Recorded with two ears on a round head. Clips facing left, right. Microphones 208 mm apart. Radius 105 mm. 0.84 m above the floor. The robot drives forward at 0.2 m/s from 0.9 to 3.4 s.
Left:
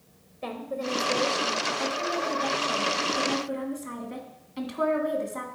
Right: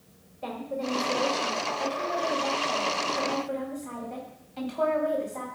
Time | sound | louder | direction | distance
0.4 | a woman speaking | even | 25° left (ahead or behind) | 1.5 m